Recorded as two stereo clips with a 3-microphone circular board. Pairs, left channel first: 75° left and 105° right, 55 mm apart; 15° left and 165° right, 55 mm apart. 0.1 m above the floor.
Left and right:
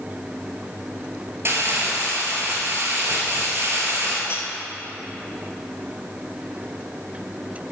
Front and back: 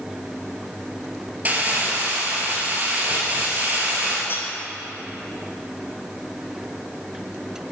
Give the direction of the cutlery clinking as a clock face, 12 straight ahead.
10 o'clock.